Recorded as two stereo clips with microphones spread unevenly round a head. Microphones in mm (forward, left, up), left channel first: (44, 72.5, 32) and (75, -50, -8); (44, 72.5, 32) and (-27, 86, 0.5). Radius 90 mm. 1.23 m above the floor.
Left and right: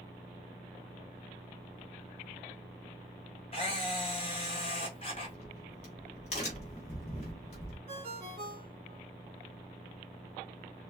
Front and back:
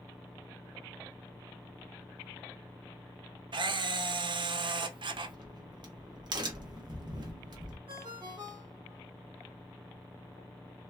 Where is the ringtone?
135° right, 0.8 m.